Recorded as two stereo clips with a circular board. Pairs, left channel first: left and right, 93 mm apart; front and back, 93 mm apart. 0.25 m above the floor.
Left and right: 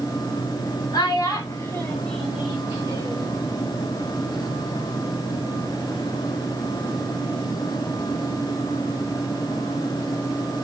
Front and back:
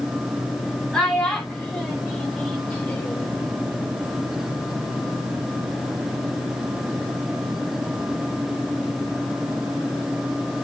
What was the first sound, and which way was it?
A child speaking, 80° left.